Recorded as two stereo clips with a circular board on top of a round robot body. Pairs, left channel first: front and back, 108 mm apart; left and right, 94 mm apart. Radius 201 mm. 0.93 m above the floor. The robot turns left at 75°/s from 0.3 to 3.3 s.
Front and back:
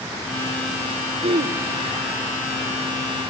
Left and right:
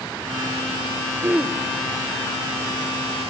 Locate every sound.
1.2 s throat clearing: 155° right, 1.0 m; by 1.6 s straight behind, 1.0 m